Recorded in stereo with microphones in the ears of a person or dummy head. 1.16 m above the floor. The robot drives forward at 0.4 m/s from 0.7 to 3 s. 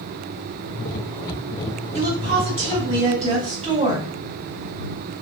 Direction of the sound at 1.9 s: 45° right (ahead or behind).